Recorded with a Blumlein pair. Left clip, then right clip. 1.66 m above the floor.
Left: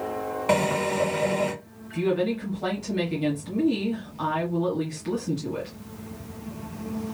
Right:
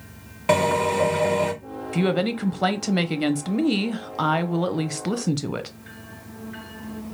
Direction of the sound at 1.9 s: 55° right.